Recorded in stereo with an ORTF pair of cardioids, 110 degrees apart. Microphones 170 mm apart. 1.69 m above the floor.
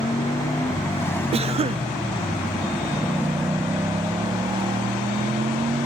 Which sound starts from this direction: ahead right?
A cough, at 1.3 s.